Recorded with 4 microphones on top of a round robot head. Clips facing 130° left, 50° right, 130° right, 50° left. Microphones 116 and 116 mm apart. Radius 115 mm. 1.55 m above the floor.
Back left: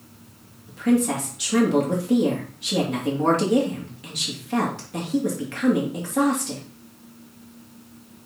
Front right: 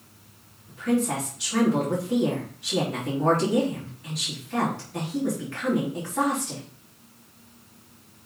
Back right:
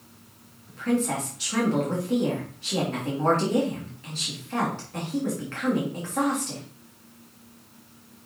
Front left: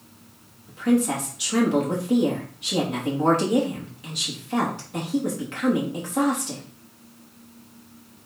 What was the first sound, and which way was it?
A woman speaking, 125° left.